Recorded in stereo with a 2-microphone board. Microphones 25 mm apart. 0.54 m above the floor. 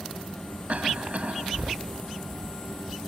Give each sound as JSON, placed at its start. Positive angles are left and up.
{"t": 0.7, "sound": "a cough", "side_deg": -60}